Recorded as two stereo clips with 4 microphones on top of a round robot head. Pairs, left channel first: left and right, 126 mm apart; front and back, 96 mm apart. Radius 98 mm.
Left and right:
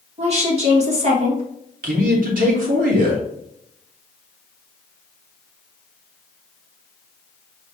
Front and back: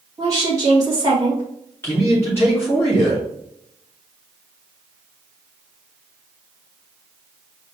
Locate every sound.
0.2 s a woman speaking: 120° right, 2.5 m
1.8 s a man speaking: 75° right, 1.4 m